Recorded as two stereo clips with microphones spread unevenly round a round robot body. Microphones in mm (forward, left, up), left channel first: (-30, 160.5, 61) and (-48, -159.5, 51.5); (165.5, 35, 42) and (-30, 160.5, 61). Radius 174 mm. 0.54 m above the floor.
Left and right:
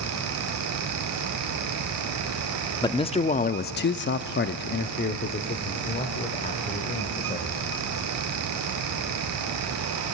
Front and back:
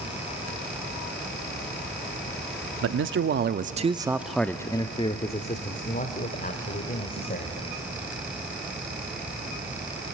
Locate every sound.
2.8 s a man speaking: 165° left, 0.9 m; by 7.6 s 15° left, 2.5 m